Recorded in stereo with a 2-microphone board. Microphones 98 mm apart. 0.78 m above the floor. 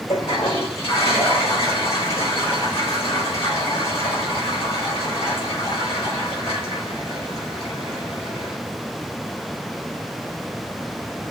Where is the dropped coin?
I don't hear a dropped coin.